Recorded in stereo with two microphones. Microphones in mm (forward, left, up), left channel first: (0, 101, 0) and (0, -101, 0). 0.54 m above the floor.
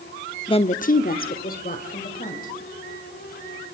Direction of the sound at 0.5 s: 20° left (ahead or behind).